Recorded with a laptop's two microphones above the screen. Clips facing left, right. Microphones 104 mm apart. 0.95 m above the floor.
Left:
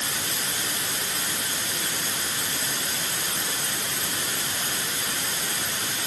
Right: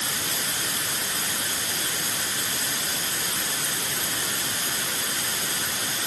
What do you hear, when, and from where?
Only background noise.